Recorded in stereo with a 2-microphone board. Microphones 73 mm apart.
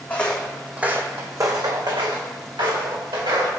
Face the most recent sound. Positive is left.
turn(degrees=-85)